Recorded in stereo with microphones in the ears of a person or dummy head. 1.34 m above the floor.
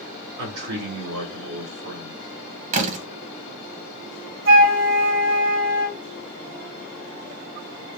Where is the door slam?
45° right (ahead or behind), 1.1 m.